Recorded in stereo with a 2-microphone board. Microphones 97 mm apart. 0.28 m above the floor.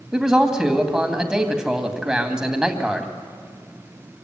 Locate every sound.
0.1 s a man speaking: 5° right (ahead or behind), 2 m